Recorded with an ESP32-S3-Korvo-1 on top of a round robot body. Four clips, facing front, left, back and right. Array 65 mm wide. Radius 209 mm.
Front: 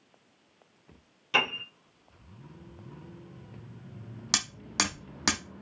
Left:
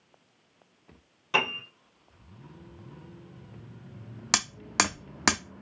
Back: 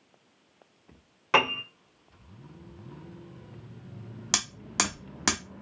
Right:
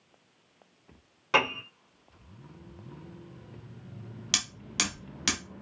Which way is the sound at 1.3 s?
165° right.